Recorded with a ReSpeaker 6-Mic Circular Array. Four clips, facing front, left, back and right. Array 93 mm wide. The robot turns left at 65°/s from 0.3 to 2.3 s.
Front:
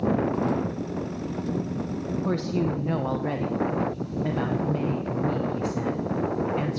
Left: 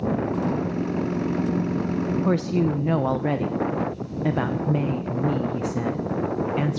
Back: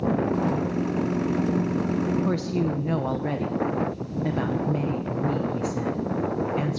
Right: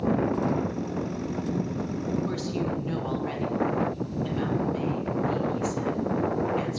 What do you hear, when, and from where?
2.2 s a woman speaking: 100° left, 0.6 m; by 6.8 s 95° left, 0.6 m